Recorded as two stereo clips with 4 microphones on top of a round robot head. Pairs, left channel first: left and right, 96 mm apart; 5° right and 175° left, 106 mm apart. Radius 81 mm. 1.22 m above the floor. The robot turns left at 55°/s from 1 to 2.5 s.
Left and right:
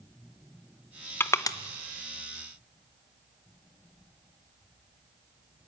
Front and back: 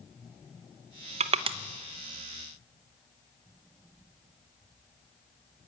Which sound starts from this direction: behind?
Crushing, at 1.2 s.